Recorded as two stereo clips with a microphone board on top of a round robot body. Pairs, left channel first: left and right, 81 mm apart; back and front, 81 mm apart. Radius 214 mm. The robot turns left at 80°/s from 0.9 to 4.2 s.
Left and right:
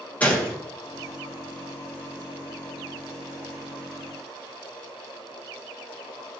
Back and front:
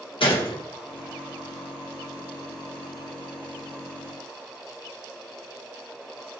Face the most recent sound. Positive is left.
turn(degrees=-100)